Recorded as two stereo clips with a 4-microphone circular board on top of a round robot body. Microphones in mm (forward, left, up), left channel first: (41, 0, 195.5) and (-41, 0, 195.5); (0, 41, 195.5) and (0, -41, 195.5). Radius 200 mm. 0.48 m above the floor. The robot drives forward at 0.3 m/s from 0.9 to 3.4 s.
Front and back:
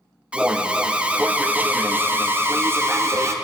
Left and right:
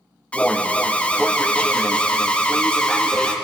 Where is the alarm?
135° left, 1.8 m; by 3.3 s 160° left, 2 m.